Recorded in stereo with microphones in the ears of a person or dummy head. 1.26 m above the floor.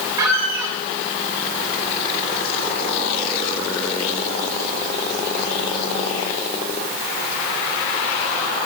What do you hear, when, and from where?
0.2 s a squeak: 20° right (ahead or behind), 2.5 m